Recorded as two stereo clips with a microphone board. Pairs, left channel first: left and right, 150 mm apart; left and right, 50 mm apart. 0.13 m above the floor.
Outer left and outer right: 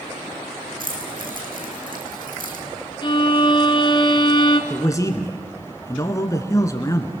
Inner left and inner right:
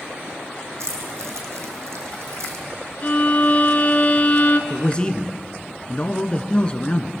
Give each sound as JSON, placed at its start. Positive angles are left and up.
{"t": 0.8, "sound": "keys jangling", "side_deg": -75, "distance_m": 4.0}
{"t": 3.0, "sound": "a violin", "side_deg": 35, "distance_m": 1.1}
{"t": 4.7, "sound": "a man speaking", "side_deg": 25, "distance_m": 1.6}